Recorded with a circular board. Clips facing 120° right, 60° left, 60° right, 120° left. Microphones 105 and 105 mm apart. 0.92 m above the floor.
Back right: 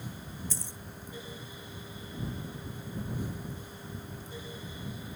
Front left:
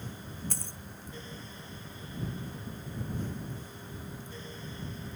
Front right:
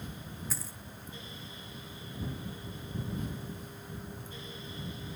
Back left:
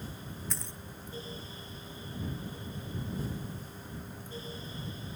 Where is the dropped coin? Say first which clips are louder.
Even, back left 1 dB; 25° left.